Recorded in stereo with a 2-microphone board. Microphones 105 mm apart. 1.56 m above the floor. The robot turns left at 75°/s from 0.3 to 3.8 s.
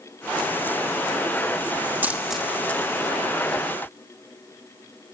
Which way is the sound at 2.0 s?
20° right (ahead or behind).